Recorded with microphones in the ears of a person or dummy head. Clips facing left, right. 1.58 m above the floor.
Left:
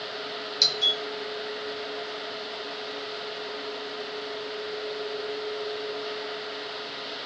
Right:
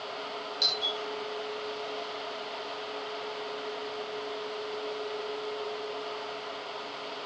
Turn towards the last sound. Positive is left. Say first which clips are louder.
# left 3 dB
turn(degrees=40)  # may be behind; listen again after turning